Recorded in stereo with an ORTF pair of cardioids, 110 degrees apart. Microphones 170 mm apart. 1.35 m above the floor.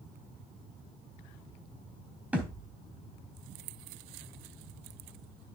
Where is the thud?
10° right, 3 m.